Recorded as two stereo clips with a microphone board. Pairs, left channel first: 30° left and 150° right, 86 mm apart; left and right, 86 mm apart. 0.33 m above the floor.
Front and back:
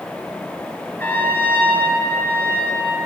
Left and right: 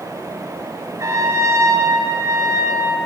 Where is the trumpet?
35° right, 5 m.